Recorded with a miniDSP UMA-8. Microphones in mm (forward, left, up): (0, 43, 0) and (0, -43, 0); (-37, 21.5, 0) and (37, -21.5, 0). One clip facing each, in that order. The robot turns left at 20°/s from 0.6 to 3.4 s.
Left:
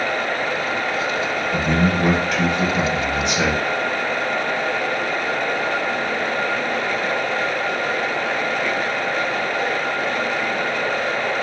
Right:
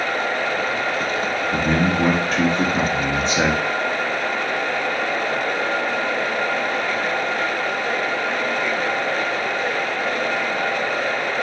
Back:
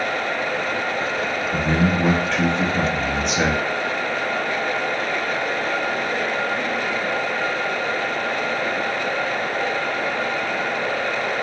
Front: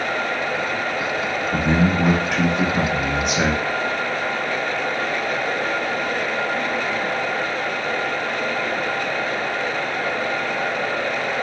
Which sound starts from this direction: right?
A man speaking, at 1.5 s.